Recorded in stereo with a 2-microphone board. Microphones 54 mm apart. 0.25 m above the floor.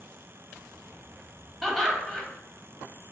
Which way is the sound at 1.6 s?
5° left (ahead or behind).